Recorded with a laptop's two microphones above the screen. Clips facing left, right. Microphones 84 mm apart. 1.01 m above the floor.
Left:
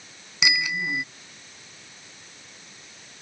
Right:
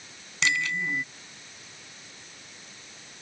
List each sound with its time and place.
0.4 s a bicycle bell: 10° left (ahead or behind)